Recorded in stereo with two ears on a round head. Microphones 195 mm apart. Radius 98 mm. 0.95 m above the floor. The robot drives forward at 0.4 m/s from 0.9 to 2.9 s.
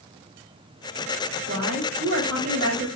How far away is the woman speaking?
About 2.0 m.